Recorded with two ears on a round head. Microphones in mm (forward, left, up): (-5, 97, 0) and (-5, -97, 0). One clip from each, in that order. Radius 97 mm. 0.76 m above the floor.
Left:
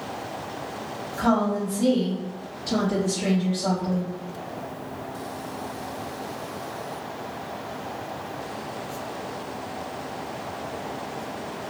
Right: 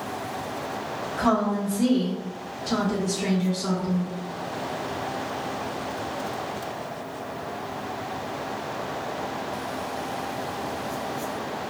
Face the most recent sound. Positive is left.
turn(degrees=-10)  # may be behind; listen again after turning